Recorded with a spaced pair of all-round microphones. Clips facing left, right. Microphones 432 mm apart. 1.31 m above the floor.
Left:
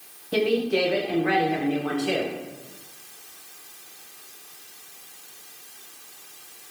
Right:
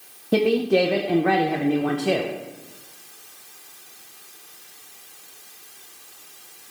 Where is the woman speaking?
70° right (ahead or behind), 0.6 m.